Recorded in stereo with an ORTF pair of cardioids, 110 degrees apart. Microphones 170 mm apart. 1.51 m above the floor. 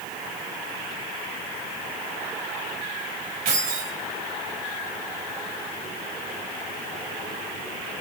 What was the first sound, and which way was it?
Keys jangling, 60° right.